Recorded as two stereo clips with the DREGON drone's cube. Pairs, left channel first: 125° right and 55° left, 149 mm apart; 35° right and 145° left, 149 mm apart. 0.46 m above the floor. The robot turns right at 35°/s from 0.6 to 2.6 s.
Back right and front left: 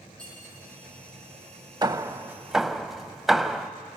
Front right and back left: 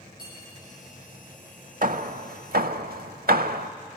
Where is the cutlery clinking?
40° right, 9.5 m.